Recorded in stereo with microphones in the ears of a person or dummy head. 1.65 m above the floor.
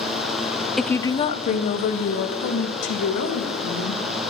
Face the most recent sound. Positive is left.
turn(degrees=70)  # may be behind; listen again after turning